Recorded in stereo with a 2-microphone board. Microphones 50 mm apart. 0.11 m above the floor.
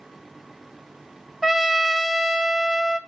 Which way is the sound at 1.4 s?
10° right (ahead or behind).